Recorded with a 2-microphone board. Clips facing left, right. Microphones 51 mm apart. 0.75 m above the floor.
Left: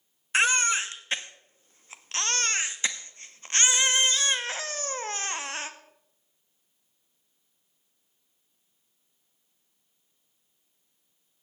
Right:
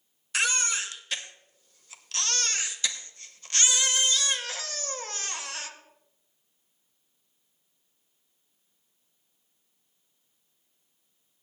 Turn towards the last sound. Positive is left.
turn(degrees=30)  # may be behind; listen again after turning